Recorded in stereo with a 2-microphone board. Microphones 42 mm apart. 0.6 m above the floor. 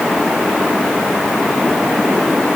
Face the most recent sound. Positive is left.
No sound to turn to.